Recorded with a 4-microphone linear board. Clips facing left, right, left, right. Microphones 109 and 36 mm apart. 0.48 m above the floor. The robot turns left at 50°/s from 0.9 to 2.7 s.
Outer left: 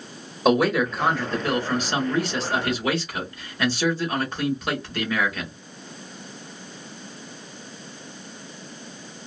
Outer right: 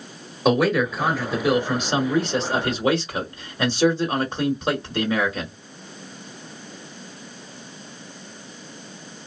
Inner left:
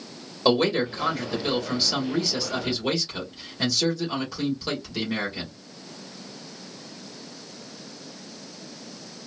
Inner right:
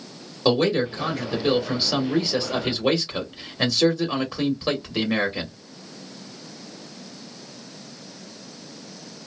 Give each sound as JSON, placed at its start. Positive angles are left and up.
{"t": 0.5, "sound": "a man speaking", "side_deg": 0, "distance_m": 1.2}